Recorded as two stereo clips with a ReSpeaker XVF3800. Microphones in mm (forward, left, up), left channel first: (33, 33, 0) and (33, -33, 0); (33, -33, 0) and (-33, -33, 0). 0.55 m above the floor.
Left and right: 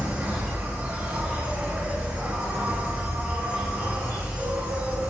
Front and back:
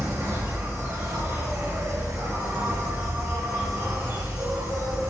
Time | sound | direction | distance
0.0 | an insect | 150° right | 1.0 m